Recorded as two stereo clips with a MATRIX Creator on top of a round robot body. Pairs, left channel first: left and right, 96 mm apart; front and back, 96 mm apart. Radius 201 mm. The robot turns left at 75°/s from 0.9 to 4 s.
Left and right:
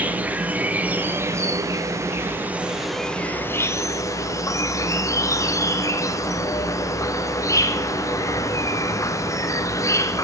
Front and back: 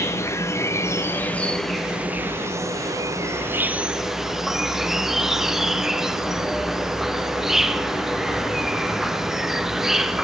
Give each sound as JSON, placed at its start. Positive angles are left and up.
{"t": 0.0, "sound": "an insect", "azimuth_deg": -30, "distance_m": 1.1}